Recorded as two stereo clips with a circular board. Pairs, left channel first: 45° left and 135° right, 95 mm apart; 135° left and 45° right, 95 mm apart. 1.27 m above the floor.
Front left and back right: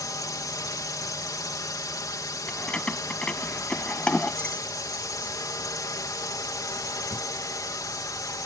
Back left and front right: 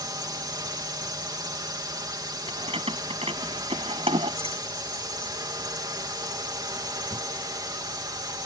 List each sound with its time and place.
0.0 s a drone: 5° right
2.5 s keys jangling: 35° right